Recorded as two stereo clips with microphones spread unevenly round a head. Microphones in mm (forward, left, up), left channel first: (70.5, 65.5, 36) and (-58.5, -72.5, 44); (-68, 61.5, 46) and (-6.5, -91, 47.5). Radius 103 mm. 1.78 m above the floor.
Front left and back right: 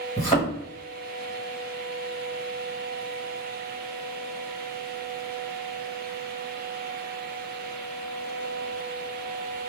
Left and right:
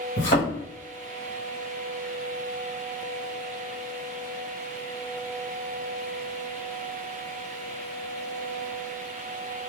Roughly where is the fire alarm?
I don't hear a fire alarm.